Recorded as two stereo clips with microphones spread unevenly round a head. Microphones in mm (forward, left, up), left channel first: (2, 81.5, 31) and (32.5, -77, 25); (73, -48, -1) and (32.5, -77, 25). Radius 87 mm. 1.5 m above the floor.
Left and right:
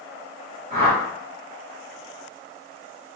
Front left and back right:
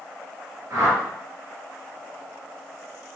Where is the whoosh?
125° right, 1.8 m.